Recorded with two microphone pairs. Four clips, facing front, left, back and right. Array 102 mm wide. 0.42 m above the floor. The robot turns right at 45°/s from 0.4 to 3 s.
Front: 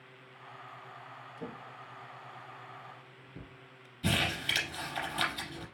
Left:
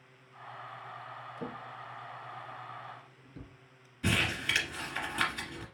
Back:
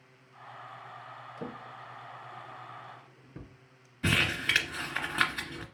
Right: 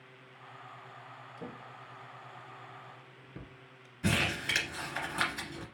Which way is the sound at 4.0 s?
170° right.